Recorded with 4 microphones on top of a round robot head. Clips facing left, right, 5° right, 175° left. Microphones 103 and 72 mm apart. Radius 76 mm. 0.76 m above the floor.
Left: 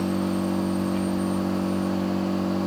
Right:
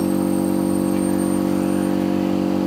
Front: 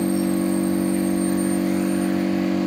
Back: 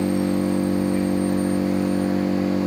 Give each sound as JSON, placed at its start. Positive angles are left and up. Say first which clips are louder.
{"t": 0.0, "sound": "an engine running", "louder": "right 6 dB, even", "azimuth_deg": -125, "distance_m": 2.5}